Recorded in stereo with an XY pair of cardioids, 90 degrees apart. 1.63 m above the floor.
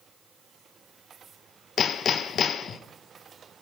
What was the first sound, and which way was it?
Hammering, 60° left.